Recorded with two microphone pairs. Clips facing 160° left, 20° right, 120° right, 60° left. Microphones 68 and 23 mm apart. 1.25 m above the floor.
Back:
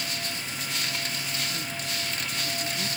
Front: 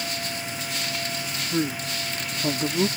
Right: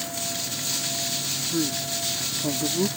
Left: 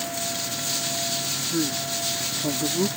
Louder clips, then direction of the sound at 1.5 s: Front 8 dB, left 1 dB; 25° right.